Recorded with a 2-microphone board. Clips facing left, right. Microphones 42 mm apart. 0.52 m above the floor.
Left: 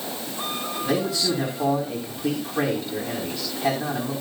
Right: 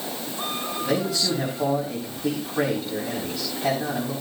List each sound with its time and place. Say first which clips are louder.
0.8 s a man speaking: left 1 dB; centre (ahead or behind), 4 m